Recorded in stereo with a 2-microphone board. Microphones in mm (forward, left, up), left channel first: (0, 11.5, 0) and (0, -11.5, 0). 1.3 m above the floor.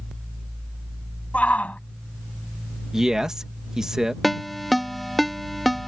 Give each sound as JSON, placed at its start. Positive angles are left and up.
{"t": 1.3, "sound": "a shout", "side_deg": 80}
{"t": 2.9, "sound": "a man speaking", "side_deg": -25}
{"t": 4.2, "sound": "a ringtone", "side_deg": 0}